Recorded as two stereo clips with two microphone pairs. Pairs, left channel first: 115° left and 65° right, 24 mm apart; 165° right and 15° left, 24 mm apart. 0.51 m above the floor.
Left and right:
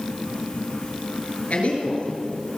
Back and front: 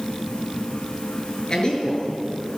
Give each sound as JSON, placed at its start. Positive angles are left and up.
{"t": 1.5, "sound": "a man speaking", "azimuth_deg": 145, "distance_m": 7.0}